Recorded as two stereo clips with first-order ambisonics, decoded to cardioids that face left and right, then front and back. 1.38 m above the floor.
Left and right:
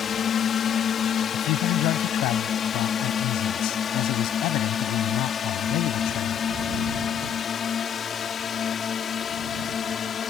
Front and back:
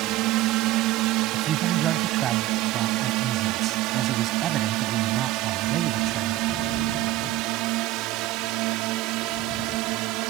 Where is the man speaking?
125° left.